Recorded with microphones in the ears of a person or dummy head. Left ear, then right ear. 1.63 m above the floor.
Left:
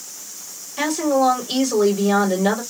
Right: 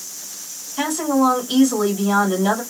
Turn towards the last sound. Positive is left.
turn(degrees=20)  # may be behind; listen again after turning